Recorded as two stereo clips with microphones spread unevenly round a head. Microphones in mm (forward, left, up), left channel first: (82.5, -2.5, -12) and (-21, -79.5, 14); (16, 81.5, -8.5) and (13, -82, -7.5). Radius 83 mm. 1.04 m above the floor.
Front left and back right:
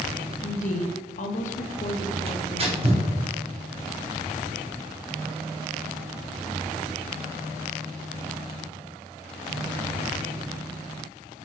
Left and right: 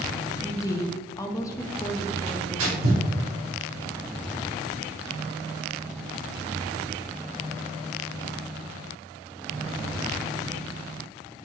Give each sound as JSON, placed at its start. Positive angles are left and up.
{"t": 0.4, "sound": "a woman speaking", "azimuth_deg": 20, "distance_m": 1.1}
{"t": 2.3, "sound": "tearing paper", "azimuth_deg": -100, "distance_m": 2.0}